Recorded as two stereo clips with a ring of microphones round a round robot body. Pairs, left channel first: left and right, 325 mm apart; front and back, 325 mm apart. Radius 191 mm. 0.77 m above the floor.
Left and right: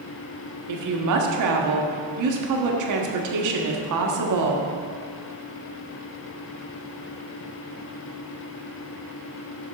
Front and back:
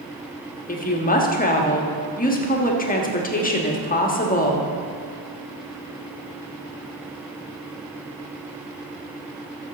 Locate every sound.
0.7 s a woman speaking: 65° right, 1.6 m